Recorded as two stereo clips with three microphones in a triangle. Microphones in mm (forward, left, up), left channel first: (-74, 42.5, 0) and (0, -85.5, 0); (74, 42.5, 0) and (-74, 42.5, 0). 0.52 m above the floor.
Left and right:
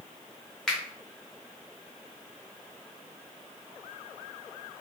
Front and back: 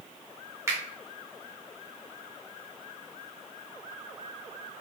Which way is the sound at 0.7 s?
160° right.